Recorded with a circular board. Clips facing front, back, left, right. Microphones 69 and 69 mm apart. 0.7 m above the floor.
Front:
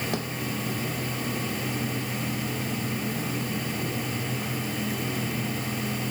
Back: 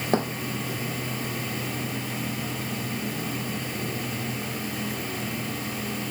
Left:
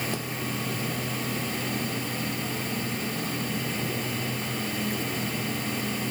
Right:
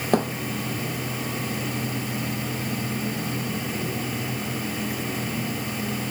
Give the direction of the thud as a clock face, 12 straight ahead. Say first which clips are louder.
Back 6 dB, right 11 dB; 4 o'clock.